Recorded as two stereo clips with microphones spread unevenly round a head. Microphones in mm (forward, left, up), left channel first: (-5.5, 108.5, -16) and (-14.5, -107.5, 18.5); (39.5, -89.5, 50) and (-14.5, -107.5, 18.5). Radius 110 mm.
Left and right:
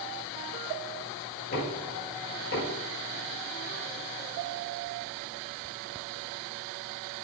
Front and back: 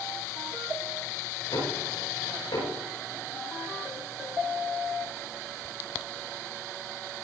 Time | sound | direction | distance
1.5 | knocking | 40° left | 9.5 m